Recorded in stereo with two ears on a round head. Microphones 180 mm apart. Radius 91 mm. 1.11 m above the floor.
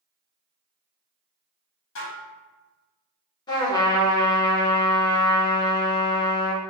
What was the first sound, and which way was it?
Dishes clattering, 70° left (ahead or behind).